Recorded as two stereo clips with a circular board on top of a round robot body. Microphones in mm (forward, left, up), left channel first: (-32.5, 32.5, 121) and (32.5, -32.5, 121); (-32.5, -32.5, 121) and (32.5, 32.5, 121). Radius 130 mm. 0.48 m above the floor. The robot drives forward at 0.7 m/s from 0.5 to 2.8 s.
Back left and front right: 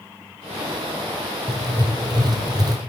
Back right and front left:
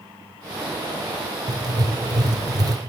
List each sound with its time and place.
1.5 s writing: straight ahead, 2.5 m